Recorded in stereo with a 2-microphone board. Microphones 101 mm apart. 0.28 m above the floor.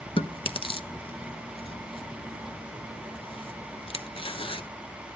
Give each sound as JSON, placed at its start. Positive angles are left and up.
{"t": 0.2, "sound": "chewing", "side_deg": 65, "distance_m": 0.8}